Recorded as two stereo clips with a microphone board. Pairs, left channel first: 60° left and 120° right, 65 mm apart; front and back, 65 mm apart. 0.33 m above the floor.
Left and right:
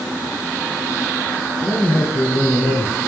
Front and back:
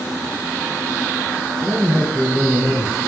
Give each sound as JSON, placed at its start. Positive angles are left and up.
{"t": 1.6, "sound": "a man speaking", "azimuth_deg": 95, "distance_m": 5.5}